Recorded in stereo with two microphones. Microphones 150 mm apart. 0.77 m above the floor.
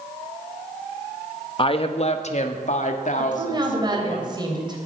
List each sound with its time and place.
1.6 s a woman speaking: 35° left (ahead or behind), 1.0 m; by 4.2 s 55° left (ahead or behind), 2.5 m
3.2 s a woman speaking: 30° right (ahead or behind), 3.5 m